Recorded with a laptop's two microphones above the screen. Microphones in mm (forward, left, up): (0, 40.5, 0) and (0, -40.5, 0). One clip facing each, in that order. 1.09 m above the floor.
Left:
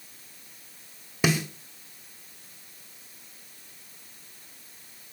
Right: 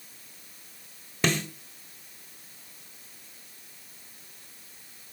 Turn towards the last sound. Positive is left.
turn(degrees=10)  # may be behind; listen again after turning